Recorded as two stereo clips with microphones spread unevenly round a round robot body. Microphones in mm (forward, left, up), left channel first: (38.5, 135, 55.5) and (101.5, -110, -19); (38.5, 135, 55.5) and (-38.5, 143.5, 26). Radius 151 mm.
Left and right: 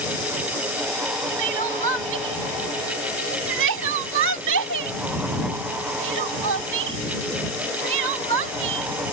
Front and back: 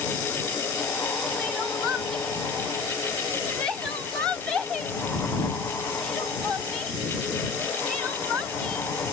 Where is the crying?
100° right.